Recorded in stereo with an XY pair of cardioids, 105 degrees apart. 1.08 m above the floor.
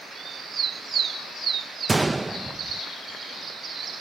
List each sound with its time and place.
1.9 s a gunshot: 20° right